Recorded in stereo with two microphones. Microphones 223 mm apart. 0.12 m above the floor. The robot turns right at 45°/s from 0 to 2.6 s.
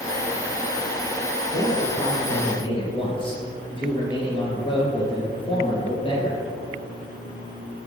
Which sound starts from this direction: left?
A man speaking, at 1.5 s.